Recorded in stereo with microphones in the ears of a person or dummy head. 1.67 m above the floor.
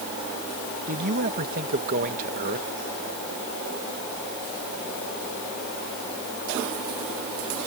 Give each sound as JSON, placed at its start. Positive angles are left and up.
{"t": 0.9, "sound": "a man speaking", "side_deg": -50}